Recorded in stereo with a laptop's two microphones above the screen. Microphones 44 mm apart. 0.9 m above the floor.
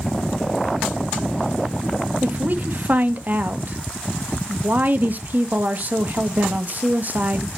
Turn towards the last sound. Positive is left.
turn(degrees=-45)  # may be behind; listen again after turning